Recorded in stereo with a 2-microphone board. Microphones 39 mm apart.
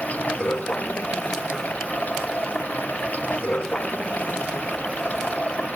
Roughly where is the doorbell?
No doorbell in this recording.